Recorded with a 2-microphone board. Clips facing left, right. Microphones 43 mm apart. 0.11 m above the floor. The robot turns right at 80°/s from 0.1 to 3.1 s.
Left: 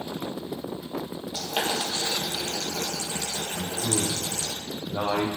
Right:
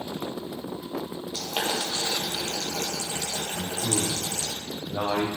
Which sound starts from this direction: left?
Boiling, at 1.3 s.